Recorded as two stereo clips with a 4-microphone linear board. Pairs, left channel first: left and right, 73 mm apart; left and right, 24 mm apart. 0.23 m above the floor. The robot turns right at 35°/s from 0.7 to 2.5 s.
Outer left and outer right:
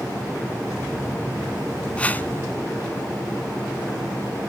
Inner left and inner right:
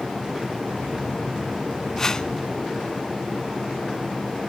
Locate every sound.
2.0 s a whoosh: 20° left (ahead or behind), 0.7 m; by 2.3 s 30° left (ahead or behind), 0.7 m